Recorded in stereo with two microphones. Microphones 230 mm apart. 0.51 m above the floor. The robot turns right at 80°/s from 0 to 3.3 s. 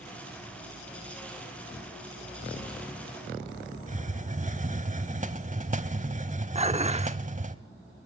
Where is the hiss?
35° right (ahead or behind), 1.2 m.